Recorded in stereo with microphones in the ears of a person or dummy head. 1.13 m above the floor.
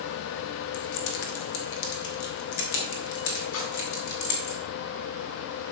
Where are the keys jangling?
65° left (ahead or behind), 1.6 m; by 4.5 s 70° left (ahead or behind), 4 m.